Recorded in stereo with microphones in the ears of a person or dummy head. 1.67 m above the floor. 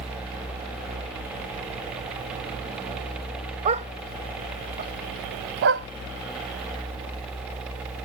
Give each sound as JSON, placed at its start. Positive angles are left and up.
{"t": 3.6, "sound": "a dog barking", "side_deg": -40}